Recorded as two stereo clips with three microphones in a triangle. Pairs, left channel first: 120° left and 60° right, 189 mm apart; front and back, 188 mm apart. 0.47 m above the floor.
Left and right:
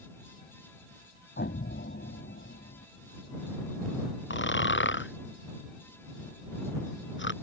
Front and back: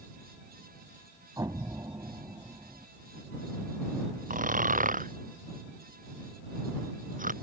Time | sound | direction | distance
1.4 | an explosion | 110° left | ?
4.3 | snoring | 135° left | ?